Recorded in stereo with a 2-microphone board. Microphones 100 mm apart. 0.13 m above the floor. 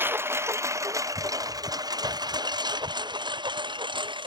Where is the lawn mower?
25° right (ahead or behind); by 4.3 s 60° right (ahead or behind).